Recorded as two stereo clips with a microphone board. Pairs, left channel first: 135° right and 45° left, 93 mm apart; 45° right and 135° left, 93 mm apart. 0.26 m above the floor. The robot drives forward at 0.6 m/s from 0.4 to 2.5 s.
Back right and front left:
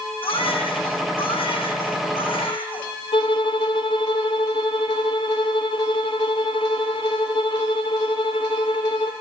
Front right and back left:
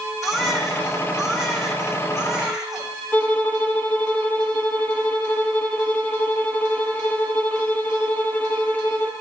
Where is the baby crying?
135° right, 9.5 m; by 2.9 s 140° right, 10.5 m.